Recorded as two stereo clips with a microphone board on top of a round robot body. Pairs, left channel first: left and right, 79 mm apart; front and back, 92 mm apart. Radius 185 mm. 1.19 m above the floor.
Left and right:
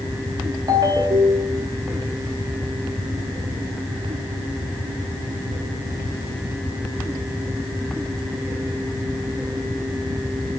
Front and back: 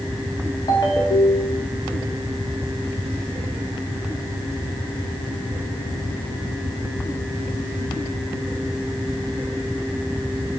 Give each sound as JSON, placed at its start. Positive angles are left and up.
{"t": 0.7, "sound": "a ringtone", "azimuth_deg": -45, "distance_m": 1.6}